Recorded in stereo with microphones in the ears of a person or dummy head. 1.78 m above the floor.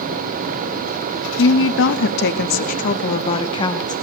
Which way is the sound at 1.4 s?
75° left (ahead or behind).